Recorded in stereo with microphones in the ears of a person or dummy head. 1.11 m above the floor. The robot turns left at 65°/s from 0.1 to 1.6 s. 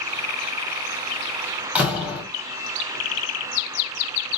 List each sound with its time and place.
1.8 s a door slam: 10° right (ahead or behind), 1.6 m